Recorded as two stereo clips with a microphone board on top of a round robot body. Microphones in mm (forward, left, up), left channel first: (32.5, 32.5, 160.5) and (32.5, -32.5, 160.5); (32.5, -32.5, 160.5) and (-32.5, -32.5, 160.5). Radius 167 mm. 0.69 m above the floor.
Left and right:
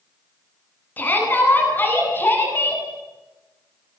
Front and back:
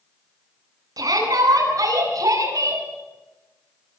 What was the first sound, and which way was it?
A shout, 155° left.